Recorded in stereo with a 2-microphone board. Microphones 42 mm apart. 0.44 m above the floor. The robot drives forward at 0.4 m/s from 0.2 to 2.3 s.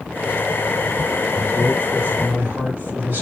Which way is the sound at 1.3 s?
50° right (ahead or behind).